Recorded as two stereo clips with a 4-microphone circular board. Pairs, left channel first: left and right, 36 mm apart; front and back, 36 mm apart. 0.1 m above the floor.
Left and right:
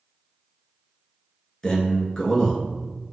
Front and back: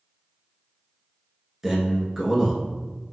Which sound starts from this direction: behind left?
A man speaking, at 1.6 s.